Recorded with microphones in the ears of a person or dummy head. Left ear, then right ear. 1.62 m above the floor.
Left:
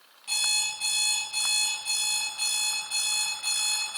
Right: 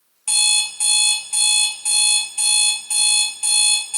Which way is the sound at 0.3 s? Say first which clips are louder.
Right 8 dB; 45° right (ahead or behind).